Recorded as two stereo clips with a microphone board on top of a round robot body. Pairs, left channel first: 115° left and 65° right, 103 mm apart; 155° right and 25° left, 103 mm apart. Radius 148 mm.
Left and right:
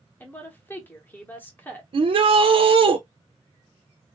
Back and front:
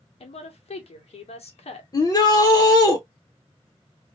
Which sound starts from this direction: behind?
A woman speaking, at 0.2 s.